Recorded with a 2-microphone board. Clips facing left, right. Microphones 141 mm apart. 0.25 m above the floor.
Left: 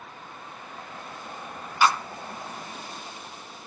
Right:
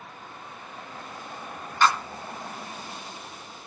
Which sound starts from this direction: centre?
A clap, at 1.8 s.